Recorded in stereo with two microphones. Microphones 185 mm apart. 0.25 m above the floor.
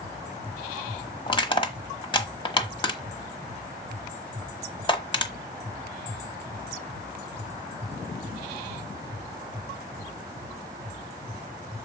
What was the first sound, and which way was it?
Crushing, 30° left (ahead or behind).